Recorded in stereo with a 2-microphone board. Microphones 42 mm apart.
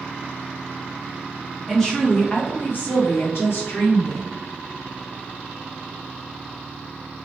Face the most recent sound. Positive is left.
turn(degrees=70)  # may be behind; listen again after turning